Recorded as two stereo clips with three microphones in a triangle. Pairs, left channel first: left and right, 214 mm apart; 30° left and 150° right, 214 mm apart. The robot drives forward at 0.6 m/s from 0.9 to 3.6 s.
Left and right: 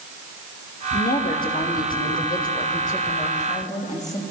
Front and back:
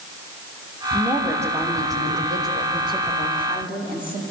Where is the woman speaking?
130° left, 4 m; by 4.2 s 145° left, 5.5 m.